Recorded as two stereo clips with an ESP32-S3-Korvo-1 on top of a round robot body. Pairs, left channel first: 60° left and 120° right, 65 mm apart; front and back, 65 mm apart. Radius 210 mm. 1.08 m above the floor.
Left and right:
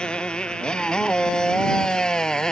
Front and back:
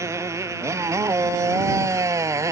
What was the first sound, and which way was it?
A motorcycle, 135° left.